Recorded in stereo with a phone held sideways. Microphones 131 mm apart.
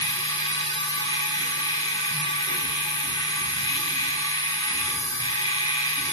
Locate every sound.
0.0 s a machine running: 35° left (ahead or behind), 3 m